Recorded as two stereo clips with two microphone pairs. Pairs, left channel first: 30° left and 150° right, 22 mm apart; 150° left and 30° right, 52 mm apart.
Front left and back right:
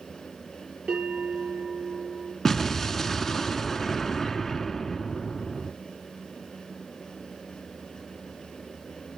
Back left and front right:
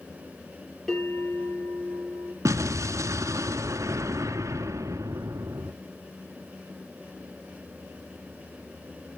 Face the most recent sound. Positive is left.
turn(degrees=-50)